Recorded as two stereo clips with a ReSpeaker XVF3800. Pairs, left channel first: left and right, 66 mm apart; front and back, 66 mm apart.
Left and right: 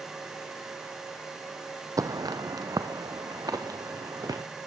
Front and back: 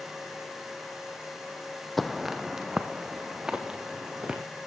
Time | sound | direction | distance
2.0 | footsteps | 90° right | 0.8 m